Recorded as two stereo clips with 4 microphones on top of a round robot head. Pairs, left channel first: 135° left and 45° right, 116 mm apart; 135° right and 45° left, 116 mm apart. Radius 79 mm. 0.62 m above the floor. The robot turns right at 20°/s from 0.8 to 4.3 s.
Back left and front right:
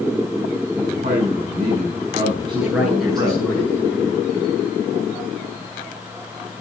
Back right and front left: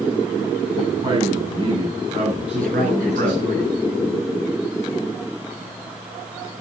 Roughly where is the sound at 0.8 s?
Ahead right.